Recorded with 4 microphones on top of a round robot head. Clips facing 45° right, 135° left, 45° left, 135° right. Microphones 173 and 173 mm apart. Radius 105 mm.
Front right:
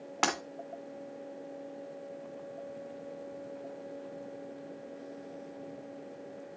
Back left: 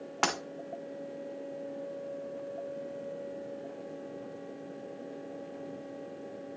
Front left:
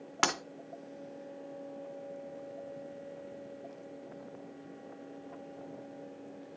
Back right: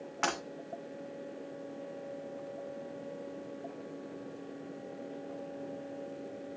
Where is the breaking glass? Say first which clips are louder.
Even, front left 1 dB; 40° left, 1.9 m.